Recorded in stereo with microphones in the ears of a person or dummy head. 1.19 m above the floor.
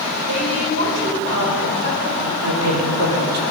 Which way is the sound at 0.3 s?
70° right (ahead or behind).